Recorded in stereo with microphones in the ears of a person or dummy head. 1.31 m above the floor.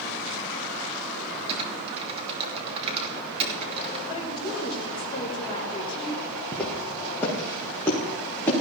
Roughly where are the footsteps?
Centre.